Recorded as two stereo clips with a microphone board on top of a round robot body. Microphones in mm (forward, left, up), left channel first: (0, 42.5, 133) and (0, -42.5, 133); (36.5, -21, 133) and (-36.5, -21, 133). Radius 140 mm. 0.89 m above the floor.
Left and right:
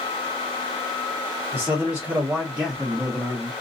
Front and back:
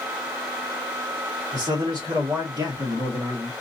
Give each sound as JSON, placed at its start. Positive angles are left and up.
{"t": 1.5, "sound": "a man speaking", "azimuth_deg": -150, "distance_m": 1.7}